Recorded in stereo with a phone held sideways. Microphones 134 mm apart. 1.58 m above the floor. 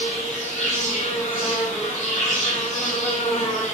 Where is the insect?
65° left (ahead or behind), 5.5 m.